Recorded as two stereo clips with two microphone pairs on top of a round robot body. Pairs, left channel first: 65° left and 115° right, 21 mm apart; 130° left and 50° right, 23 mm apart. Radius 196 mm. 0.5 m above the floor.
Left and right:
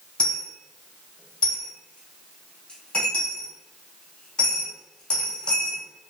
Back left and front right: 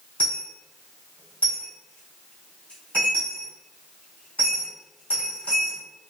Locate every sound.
0.2 s a dropped coin: 105° left, 1.2 m